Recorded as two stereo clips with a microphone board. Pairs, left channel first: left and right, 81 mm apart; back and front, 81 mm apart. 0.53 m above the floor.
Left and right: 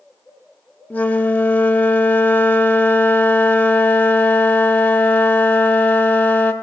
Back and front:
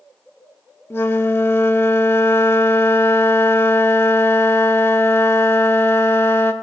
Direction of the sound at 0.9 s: 145° left.